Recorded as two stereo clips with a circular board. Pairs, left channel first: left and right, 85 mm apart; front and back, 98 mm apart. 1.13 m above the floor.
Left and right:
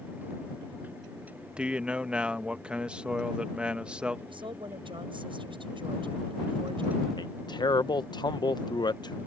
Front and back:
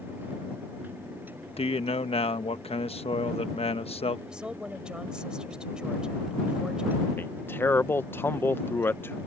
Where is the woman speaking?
100° right.